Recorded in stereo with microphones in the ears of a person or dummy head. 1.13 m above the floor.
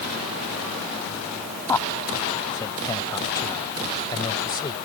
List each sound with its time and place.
1.7 s a man speaking: 15° left (ahead or behind); by 4.8 s 25° left (ahead or behind)